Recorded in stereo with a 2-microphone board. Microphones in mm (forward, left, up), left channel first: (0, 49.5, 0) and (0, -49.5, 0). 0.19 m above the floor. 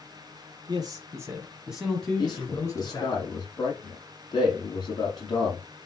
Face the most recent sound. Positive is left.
turn(degrees=45)  # may be behind; listen again after turning